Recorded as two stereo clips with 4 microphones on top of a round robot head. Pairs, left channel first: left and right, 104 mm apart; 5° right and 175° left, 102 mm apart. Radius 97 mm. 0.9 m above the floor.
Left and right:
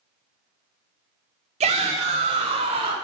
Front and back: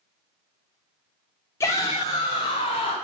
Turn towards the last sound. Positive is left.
turn(degrees=-50)